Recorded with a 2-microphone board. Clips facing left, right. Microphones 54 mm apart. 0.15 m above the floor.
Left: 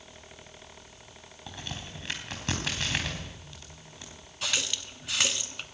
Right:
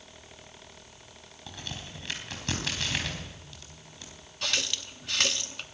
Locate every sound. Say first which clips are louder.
1.5 s a crack: left 1 dB; 20° left (ahead or behind), 4.5 m
4.4 s a running tap: even; 5° left (ahead or behind), 0.9 m